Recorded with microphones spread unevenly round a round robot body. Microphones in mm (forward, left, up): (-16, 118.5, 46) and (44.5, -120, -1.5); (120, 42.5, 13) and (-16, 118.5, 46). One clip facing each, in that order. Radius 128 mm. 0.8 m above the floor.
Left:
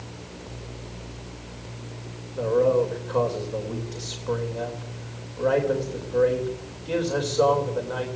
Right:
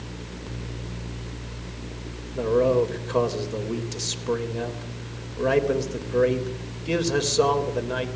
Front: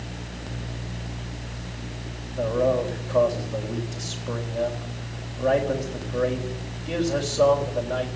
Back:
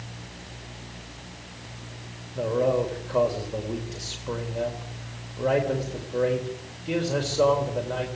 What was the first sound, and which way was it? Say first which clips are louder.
A man speaking: even, front 1 dB; 120° right.